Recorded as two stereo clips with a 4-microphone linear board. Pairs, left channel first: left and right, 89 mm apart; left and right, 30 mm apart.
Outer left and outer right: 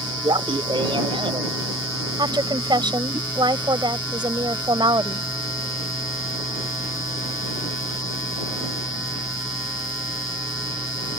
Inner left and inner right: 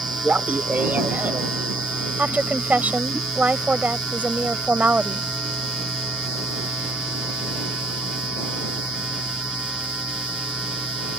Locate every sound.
0.2 s laughter: 70° right (ahead or behind); by 3.2 s 80° right
2.2 s a woman speaking: 60° right (ahead or behind)